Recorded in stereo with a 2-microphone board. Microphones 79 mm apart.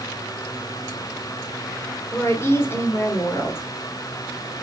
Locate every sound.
2.1 s a woman speaking: 30° left (ahead or behind), 1.3 m